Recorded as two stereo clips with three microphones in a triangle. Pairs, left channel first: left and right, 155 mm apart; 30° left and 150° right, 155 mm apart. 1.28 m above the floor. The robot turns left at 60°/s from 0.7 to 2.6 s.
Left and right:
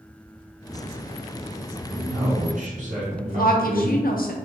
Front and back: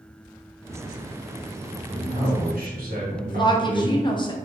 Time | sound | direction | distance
1.9 | a man speaking | 85° right | 1.3 m
3.3 | a woman speaking | 85° left | 0.5 m